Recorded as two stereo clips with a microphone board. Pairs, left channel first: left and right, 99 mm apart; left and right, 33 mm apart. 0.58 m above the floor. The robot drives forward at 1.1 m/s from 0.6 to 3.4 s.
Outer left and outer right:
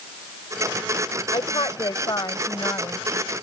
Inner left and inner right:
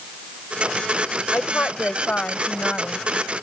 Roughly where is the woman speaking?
Left.